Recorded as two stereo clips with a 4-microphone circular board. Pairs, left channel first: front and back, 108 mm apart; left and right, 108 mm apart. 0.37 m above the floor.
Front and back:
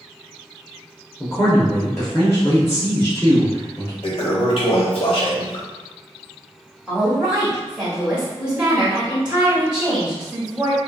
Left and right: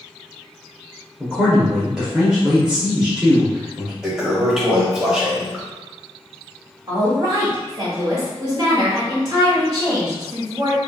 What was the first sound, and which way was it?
A man speaking, 20° right.